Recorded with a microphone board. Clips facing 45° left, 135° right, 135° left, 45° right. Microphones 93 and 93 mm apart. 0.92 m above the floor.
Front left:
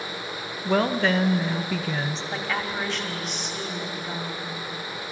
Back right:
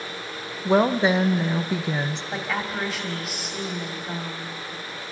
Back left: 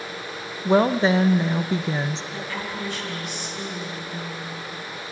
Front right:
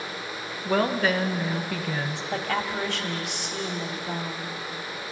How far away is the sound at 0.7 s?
About 0.8 m.